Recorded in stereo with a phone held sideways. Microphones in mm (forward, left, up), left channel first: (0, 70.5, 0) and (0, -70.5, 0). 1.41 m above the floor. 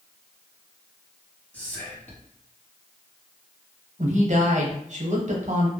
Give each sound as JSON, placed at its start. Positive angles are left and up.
{"t": 1.5, "sound": "whispering", "side_deg": 10, "distance_m": 0.8}
{"t": 4.0, "sound": "a woman speaking", "side_deg": -55, "distance_m": 0.7}